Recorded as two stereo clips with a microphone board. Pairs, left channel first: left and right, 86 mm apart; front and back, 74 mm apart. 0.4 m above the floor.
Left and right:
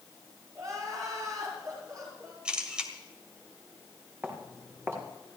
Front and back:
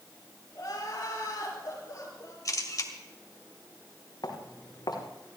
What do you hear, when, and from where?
0.6 s crying: 45° right, 7 m
2.5 s a camera shutter: 15° right, 2 m
4.2 s footsteps: 25° right, 4.5 m